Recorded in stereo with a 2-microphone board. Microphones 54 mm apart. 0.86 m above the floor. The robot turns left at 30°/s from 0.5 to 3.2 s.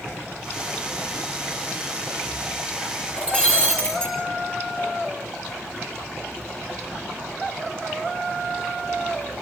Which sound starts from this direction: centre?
Breaking glass, at 3.2 s.